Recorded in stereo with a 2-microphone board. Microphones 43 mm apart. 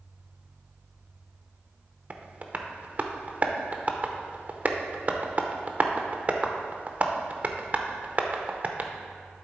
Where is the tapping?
40° right (ahead or behind), 0.7 m.